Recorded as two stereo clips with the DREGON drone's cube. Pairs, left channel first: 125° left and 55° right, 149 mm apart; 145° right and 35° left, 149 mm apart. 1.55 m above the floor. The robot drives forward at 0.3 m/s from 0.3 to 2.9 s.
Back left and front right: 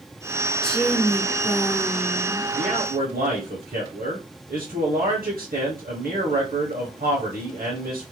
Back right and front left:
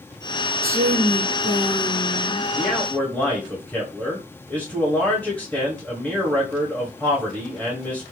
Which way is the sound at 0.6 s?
40° left.